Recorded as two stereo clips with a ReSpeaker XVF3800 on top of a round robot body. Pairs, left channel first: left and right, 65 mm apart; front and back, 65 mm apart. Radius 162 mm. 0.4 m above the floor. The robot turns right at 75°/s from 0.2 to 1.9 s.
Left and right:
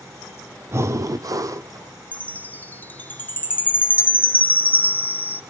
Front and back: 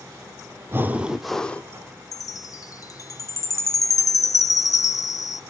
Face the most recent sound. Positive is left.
turn(degrees=25)